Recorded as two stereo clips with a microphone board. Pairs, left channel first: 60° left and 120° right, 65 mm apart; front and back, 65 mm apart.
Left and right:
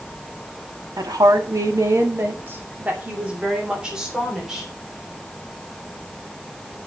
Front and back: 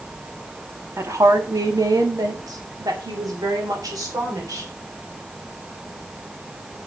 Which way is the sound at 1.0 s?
135° right.